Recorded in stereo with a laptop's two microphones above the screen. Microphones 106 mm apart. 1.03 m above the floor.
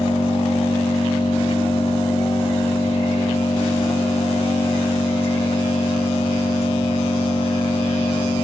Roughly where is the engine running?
Left.